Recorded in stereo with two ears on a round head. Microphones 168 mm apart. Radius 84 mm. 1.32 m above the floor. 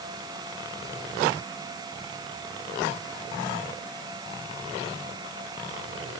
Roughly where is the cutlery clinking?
I don't hear cutlery clinking.